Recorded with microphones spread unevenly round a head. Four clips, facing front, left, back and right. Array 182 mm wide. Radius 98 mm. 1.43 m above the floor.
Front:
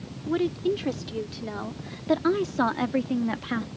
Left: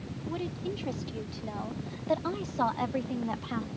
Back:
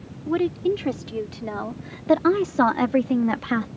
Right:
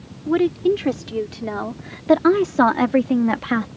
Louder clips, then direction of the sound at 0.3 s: Right 18 dB, back 3 dB; 90° right.